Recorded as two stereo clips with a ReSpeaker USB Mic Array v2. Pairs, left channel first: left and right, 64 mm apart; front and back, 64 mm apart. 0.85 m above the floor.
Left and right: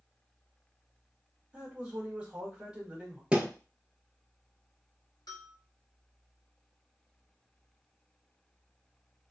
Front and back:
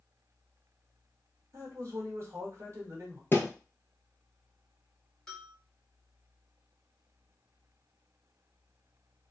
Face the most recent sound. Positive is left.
turn(degrees=85)